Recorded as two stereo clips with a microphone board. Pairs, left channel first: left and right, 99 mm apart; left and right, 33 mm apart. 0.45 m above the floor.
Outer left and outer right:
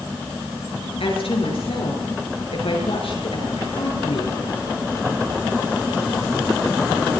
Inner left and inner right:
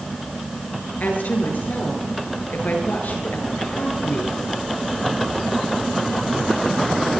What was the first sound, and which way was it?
A woman speaking, 75° left (ahead or behind).